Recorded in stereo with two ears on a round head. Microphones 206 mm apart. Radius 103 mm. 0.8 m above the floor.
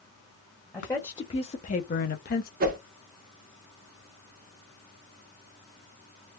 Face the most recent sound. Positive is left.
turn(degrees=-40)  # may be behind; listen again after turning